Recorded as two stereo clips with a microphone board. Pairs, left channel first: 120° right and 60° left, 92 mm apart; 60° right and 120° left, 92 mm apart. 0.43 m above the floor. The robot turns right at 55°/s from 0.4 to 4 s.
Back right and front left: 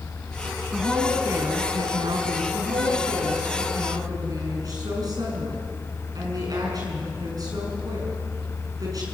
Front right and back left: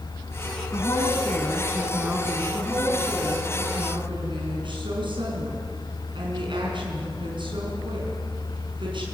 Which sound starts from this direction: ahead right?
A woman speaking, at 0.7 s.